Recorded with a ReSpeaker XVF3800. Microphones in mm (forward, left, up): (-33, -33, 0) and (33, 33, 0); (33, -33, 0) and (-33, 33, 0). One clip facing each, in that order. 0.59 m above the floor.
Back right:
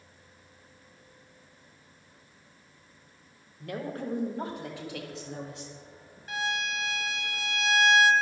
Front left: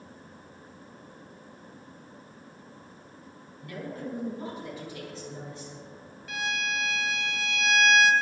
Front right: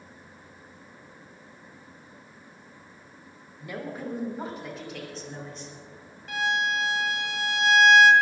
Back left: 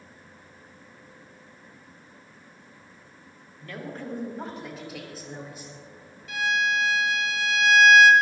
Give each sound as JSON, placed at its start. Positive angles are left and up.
{"t": 3.6, "sound": "a woman speaking", "azimuth_deg": -120, "distance_m": 3.0}
{"t": 6.3, "sound": "a violin", "azimuth_deg": -85, "distance_m": 1.6}